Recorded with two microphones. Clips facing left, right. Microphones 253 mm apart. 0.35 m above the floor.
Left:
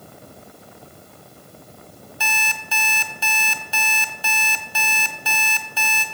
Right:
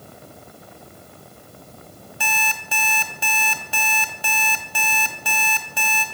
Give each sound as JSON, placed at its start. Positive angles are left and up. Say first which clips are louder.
{"t": 2.2, "sound": "an alarm clock", "louder": "right 2 dB", "side_deg": -50, "distance_m": 1.2}